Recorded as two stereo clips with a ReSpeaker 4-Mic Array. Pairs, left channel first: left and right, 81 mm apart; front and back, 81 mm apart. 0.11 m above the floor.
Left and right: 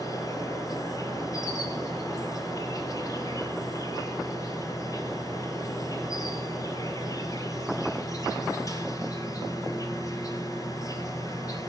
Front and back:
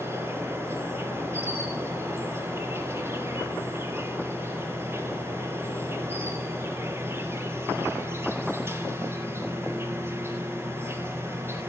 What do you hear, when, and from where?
0.0 s an insect: 125° left, 1.7 m